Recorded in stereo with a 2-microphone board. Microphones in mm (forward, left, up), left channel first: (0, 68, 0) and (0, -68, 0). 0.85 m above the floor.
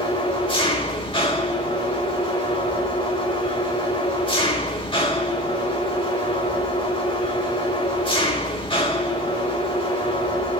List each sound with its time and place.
0.0 s an engine running: 40° left (ahead or behind), 4 m